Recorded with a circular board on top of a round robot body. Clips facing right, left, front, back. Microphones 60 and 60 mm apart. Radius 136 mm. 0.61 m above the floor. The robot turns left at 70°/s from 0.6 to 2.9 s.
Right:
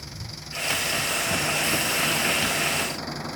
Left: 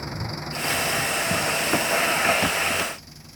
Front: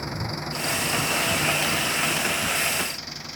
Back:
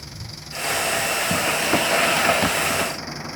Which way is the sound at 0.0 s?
45° left.